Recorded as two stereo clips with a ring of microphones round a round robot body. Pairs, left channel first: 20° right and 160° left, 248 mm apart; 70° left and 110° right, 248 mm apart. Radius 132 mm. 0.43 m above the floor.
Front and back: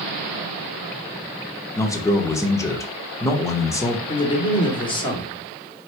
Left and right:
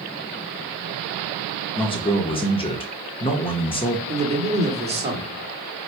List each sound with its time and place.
1.8 s a man speaking: 35° left, 0.9 m
4.1 s a man speaking: 75° right, 1.3 m